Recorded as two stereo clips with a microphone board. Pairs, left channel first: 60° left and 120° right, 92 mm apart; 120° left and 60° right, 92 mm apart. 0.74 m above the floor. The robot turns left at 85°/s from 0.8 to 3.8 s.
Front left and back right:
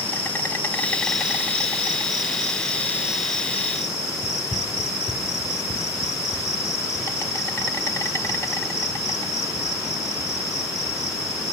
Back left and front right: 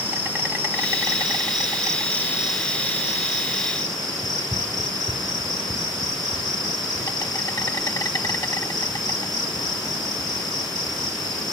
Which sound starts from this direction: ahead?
An insect, at 0.0 s.